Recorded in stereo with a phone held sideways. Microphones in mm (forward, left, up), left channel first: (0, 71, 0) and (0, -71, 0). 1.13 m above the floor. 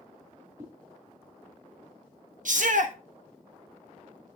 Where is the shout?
65° right (ahead or behind), 1.5 m.